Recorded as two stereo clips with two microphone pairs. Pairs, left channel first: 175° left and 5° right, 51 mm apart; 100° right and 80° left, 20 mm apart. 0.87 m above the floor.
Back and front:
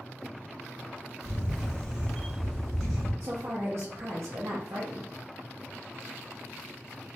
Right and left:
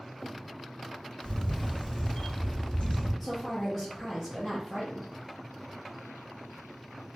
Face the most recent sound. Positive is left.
turn(degrees=-25)